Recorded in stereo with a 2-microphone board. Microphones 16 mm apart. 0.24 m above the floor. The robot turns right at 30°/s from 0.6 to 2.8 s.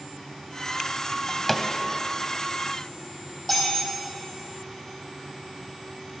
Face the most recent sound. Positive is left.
turn(degrees=20)  # may be behind; listen again after turning